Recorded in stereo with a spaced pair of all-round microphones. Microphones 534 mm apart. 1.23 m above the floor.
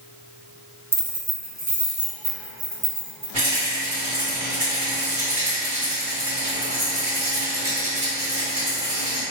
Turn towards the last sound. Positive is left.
turn(degrees=-50)  # may be behind; listen again after turning